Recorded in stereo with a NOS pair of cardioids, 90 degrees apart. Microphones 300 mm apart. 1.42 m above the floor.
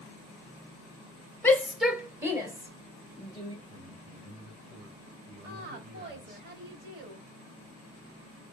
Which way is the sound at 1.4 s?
5° left.